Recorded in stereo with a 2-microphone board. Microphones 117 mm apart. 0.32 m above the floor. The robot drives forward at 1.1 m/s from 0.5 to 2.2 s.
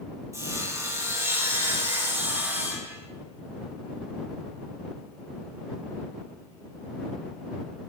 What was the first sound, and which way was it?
Sawing, 25° right (ahead or behind).